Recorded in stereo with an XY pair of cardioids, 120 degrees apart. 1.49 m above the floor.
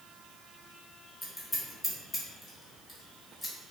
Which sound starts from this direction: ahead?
Scissors, at 1.2 s.